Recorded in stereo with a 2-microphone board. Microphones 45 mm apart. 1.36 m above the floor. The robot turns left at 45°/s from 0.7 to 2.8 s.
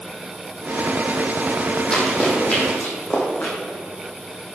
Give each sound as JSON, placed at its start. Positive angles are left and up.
{"t": 1.9, "sound": "running footsteps", "side_deg": 10, "distance_m": 2.5}